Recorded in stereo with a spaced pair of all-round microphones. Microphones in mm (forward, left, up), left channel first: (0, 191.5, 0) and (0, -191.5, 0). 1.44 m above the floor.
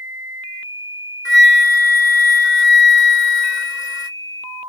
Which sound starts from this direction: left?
A flute, at 1.2 s.